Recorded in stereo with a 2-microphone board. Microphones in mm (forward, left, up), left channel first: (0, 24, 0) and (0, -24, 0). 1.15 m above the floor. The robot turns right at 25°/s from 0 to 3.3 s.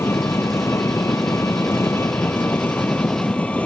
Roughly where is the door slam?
No door slam in this recording.